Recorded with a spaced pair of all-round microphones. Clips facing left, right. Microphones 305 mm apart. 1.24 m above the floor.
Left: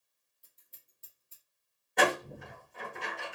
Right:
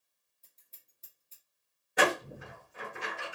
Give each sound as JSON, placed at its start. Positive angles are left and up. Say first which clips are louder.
{"t": 0.4, "sound": "scissors", "louder": "left 1 dB", "side_deg": 15, "distance_m": 1.0}
{"t": 2.0, "sound": "a door slam", "louder": "even", "side_deg": -5, "distance_m": 1.3}